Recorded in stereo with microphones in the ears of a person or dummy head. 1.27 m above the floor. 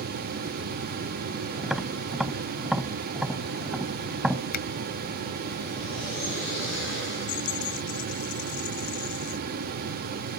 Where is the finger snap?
60° left (ahead or behind).